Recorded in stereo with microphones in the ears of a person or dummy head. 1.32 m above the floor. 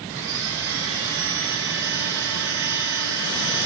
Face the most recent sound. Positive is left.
turn(degrees=-75)  # may be behind; listen again after turning